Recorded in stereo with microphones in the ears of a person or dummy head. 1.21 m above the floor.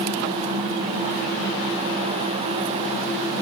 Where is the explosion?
I don't hear an explosion.